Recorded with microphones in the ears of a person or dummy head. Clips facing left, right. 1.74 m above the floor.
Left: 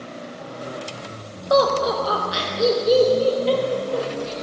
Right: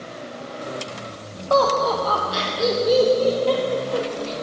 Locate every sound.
1.5 s laughter: 25° left (ahead or behind), 1.5 m; by 4.3 s 10° left (ahead or behind), 3 m